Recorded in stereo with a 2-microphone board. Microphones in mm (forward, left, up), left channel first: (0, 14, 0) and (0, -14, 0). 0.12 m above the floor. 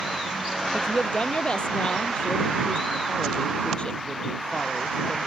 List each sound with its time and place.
0.7 s a woman speaking: 40° left (ahead or behind)